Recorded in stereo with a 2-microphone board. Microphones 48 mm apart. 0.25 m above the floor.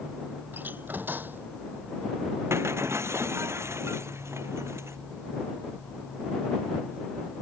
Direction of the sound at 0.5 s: 45° right (ahead or behind).